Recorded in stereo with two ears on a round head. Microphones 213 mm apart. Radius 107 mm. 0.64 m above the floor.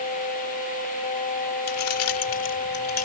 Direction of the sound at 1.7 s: 70° left (ahead or behind).